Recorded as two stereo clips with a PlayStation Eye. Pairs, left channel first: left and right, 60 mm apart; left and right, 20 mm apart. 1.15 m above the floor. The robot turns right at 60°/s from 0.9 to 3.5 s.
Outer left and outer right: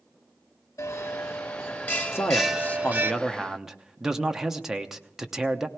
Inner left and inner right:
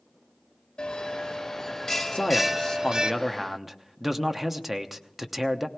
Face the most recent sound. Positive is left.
turn(degrees=-170)